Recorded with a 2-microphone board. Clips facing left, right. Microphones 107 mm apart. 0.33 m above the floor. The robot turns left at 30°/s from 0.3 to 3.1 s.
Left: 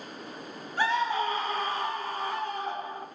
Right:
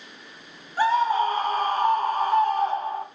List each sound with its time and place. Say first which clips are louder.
0.8 s a scream: right 6 dB; 40° right, 2.5 m; by 3.0 s 110° right, 2.5 m